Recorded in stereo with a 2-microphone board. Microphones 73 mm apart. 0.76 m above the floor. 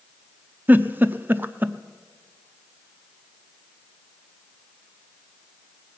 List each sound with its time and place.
0.7 s a giggle: 25° right (ahead or behind), 0.6 m